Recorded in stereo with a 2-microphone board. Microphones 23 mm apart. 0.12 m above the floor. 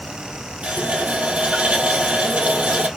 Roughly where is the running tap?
Right.